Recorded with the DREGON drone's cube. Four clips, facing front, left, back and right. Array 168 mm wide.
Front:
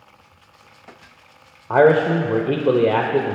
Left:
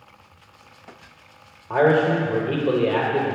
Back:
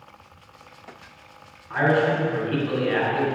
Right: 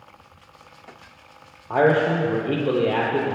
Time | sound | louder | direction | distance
1.7 | a man speaking | left 1 dB, front 7 dB | 5° right | 0.8 m